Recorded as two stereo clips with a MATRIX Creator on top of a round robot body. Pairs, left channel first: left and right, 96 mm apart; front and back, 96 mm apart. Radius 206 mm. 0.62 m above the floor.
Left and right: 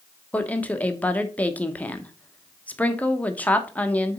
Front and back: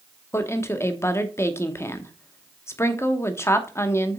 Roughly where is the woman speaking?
Ahead left.